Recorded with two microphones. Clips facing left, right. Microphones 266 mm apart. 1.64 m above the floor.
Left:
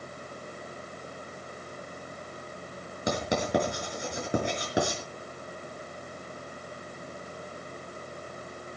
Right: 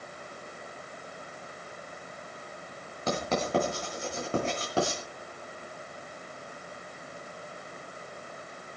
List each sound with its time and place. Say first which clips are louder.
3.1 s writing: left 1 dB; 15° left (ahead or behind), 5 m